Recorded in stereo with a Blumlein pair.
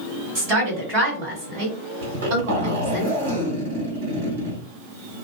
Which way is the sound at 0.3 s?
50° right.